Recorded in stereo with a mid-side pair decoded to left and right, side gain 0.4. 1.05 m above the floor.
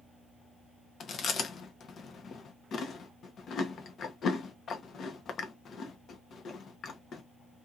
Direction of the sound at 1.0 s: 60° left.